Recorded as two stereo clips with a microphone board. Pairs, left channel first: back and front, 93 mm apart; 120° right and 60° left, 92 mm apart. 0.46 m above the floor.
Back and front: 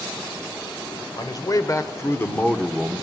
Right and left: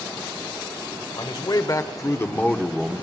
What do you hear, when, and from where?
1.2 s a man speaking: 145° right, 2.5 m; by 3.0 s 40° left, 1.3 m